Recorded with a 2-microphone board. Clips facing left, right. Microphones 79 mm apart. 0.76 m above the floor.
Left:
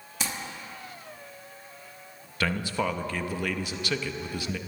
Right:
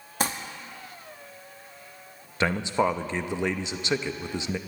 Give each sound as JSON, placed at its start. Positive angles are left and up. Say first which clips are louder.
{"t": 0.2, "sound": "crumpling", "louder": "right 6 dB", "side_deg": -45, "distance_m": 0.9}
{"t": 2.4, "sound": "a man speaking", "louder": "right 4 dB", "side_deg": -20, "distance_m": 0.6}